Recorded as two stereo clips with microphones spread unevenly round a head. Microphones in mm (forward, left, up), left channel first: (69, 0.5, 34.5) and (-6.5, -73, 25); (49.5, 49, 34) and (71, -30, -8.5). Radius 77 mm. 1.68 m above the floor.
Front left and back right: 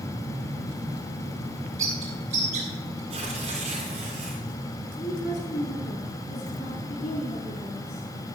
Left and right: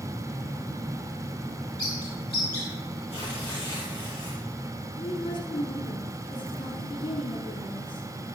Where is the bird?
Straight behind, 3 m.